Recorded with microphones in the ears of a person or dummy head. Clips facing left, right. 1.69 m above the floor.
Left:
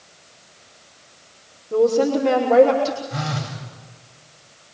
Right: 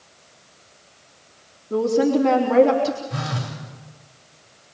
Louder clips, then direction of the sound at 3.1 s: Left 1 dB; 65° right (ahead or behind).